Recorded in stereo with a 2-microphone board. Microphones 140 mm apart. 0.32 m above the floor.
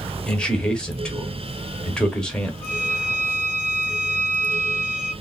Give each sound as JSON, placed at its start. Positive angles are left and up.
{"t": 0.3, "sound": "a man speaking", "side_deg": 5, "distance_m": 0.8}
{"t": 2.6, "sound": "a violin", "side_deg": 10, "distance_m": 1.8}